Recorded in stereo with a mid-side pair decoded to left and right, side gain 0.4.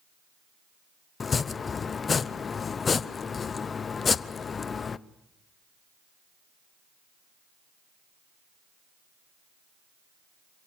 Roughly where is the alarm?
No alarm in this recording.